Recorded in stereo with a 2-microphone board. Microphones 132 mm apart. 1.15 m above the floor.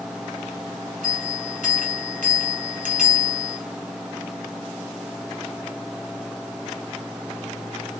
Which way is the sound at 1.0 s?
85° right.